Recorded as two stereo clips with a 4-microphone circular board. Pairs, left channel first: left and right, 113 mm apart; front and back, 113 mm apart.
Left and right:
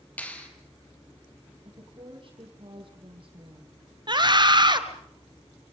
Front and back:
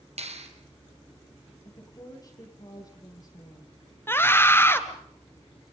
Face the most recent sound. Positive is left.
turn(degrees=-60)